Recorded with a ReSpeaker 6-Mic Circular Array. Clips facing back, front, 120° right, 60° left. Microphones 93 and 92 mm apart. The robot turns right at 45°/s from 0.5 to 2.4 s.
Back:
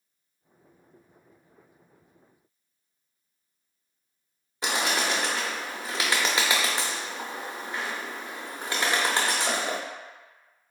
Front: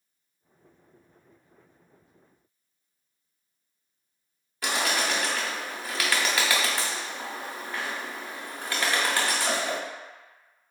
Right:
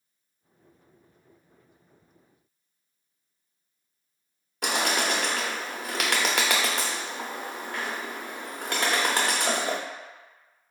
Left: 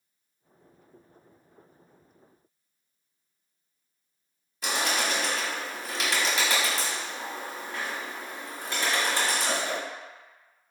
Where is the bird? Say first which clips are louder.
Even, right 2 dB; 115° right, 0.5 m.